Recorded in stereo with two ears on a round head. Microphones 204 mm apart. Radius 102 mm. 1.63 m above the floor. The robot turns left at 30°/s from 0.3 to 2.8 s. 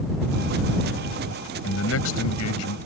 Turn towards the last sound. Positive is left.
turn(degrees=90)